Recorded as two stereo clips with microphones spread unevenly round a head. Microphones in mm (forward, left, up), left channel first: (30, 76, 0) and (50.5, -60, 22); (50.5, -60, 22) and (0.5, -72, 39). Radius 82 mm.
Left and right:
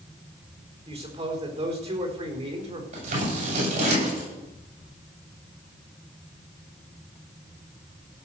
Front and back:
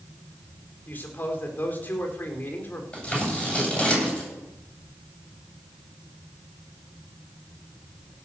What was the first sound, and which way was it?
A man speaking, 40° right.